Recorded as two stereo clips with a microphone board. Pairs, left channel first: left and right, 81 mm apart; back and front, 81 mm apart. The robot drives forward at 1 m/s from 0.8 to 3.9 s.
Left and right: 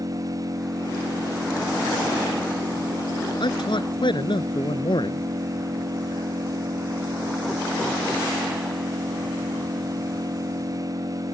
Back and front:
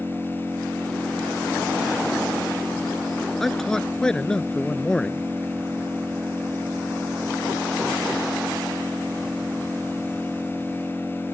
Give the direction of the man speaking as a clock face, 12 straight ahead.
9 o'clock.